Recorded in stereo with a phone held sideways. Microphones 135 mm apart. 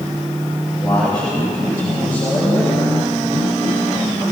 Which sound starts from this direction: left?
A man speaking, at 0.8 s.